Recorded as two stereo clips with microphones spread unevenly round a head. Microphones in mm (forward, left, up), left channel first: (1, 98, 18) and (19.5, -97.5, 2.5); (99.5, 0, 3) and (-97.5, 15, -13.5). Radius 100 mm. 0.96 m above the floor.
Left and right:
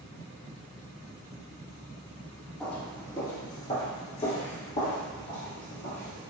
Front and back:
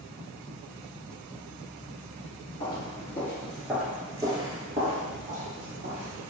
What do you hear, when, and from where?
2.6 s footsteps: 20° left, 1.0 m; by 6.2 s 135° left, 1.7 m